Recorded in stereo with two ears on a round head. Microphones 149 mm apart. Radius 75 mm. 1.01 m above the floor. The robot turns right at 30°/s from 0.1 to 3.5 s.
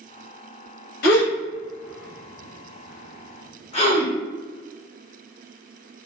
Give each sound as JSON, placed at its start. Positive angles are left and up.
{"t": 1.0, "sound": "a gasp", "side_deg": 55, "distance_m": 0.8}